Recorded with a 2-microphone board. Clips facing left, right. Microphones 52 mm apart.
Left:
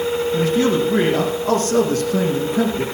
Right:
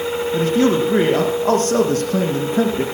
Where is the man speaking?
40° right (ahead or behind), 6 m.